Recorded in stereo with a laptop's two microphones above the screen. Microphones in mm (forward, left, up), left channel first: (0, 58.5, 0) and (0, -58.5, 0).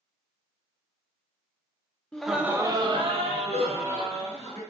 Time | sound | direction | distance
2.1 | laughter | 10° left (ahead or behind) | 0.6 m